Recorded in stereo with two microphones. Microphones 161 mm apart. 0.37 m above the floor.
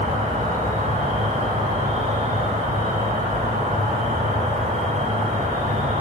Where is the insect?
50° right (ahead or behind), 0.7 m.